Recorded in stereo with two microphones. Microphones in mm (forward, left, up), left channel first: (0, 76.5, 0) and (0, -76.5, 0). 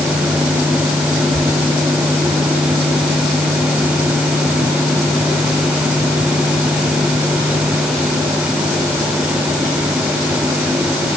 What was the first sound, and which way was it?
Only background noise.